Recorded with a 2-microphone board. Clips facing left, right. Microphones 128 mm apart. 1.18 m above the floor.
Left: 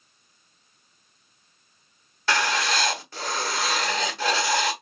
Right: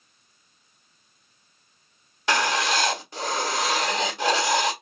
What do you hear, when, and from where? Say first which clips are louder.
2.3 s writing: right 1 dB; 20° right (ahead or behind), 1.2 m